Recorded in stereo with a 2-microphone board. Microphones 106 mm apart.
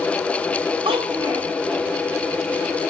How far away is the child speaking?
About 3.5 m.